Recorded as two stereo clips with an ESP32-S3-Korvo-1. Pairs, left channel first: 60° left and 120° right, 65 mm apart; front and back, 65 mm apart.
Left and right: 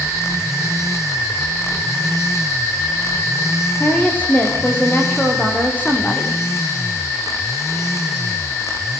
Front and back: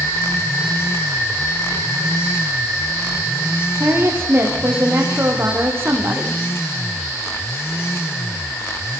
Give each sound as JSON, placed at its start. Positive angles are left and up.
{"t": 3.8, "sound": "a woman speaking", "azimuth_deg": 125, "distance_m": 9.5}